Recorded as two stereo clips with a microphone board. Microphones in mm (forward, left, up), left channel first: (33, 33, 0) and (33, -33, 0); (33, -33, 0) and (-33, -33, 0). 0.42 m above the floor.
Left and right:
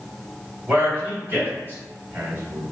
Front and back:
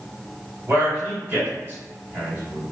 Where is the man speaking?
135° right, 1.9 m.